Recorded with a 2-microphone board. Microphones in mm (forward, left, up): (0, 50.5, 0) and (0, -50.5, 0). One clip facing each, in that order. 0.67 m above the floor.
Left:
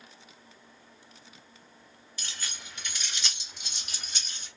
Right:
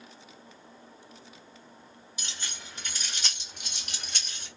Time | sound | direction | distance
2.2 | keys jangling | 15° right (ahead or behind) | 1.0 m